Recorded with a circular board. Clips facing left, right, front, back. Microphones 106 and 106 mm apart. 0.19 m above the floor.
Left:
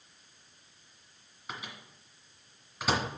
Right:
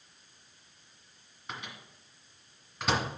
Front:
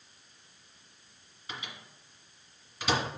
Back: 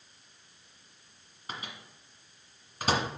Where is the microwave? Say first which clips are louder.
Even, back 2 dB; 175° left, 1.6 m.